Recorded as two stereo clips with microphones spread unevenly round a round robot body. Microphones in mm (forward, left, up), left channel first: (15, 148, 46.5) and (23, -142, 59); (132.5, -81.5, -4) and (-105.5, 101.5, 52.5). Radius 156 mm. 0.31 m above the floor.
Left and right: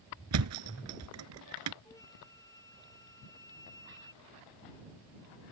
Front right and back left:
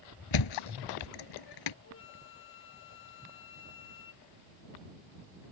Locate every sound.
0.3 s a thud: 50° right
1.9 s a flute: 15° left